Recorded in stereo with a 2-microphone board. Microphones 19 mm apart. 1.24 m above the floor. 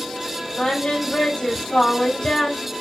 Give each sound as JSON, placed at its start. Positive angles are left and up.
{"t": 0.5, "sound": "singing", "side_deg": 70, "distance_m": 3.5}